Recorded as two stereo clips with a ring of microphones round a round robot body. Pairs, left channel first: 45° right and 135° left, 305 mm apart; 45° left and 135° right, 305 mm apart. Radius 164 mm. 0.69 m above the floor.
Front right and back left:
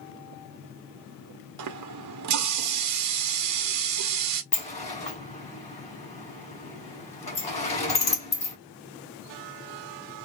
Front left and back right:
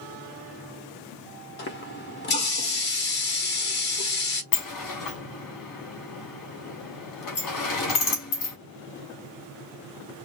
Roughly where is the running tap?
Left.